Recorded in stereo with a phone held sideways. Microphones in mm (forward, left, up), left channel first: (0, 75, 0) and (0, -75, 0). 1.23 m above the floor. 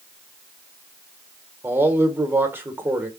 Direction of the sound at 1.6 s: 15° right (ahead or behind).